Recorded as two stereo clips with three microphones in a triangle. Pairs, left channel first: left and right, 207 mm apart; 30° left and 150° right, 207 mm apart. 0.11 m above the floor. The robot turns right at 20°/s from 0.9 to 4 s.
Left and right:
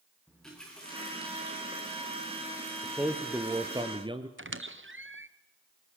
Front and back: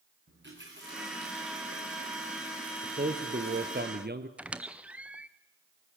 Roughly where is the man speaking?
Behind.